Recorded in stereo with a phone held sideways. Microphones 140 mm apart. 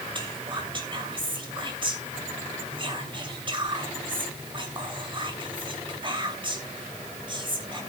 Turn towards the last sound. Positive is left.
turn(degrees=-35)  # may be behind; listen again after turning